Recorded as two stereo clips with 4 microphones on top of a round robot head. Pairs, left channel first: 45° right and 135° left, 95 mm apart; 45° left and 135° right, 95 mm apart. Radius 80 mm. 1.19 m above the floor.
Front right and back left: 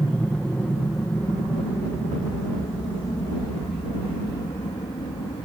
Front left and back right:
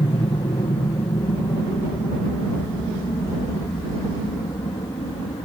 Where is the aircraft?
35° left; by 5.5 s 5° right.